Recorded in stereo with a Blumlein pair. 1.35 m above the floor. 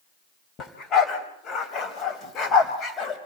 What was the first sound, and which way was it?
A dog barking, 25° left.